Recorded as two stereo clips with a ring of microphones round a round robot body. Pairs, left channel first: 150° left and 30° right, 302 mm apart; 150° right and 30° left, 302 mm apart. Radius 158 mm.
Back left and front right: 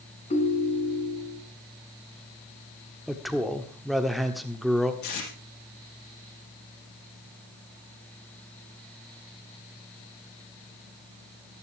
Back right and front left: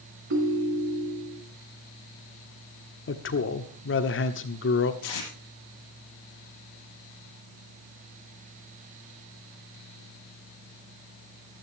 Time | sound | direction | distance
0.3 | a ringtone | 80° left | 2.5 m
3.1 | a man speaking | 120° right | 1.4 m
5.0 | tape being pulled | 175° right | 6.5 m